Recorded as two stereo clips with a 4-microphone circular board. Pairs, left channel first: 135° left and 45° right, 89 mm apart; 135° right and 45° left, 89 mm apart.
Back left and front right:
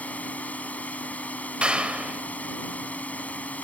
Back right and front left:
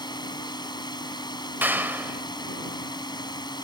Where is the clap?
15° left.